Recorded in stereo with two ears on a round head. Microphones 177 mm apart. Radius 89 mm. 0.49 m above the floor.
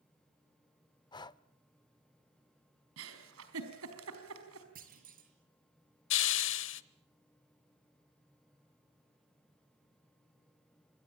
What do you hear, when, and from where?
1.1 s breathing: 20° left (ahead or behind), 0.5 m
3.0 s a giggle: 75° right (ahead or behind), 4.5 m
4.8 s a clunk: 45° right (ahead or behind), 5.5 m
6.1 s a hiss: 60° left (ahead or behind), 0.9 m